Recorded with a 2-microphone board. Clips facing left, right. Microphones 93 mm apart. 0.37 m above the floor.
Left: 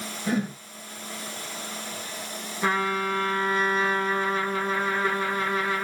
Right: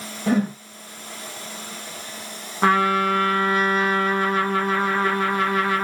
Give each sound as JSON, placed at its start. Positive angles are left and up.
{"t": 0.3, "sound": "a whoosh", "side_deg": -50, "distance_m": 1.3}
{"t": 2.6, "sound": "a trumpet", "side_deg": -90, "distance_m": 0.7}